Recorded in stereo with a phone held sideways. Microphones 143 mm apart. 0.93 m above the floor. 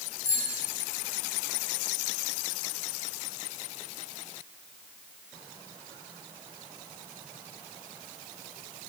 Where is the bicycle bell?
20° left (ahead or behind), 5 m.